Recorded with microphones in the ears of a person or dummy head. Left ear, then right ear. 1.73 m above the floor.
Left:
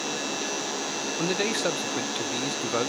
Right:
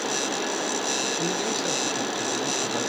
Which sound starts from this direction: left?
A man speaking, at 1.2 s.